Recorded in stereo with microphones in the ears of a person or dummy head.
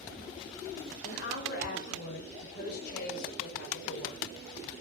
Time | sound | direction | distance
1.0 | a woman speaking | 70° left (ahead or behind) | 5.5 m